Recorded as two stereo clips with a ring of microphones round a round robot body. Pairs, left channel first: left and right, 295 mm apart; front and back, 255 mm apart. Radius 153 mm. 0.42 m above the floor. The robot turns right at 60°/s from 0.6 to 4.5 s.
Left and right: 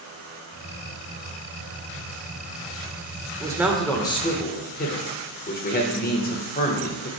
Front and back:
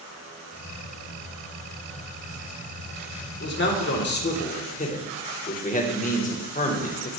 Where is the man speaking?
20° right, 1.5 m; by 7.1 s 45° left, 1.5 m.